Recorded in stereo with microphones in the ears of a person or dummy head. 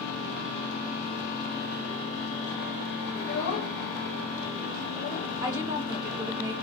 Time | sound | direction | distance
3.1 | a child speaking | 75° left (ahead or behind) | 1.0 m
5.4 | a woman speaking | 20° right (ahead or behind) | 1.3 m